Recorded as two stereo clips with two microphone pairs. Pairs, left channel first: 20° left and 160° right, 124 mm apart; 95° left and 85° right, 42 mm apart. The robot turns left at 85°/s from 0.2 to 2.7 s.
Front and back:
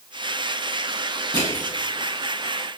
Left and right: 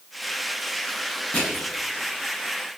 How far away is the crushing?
About 9.5 m.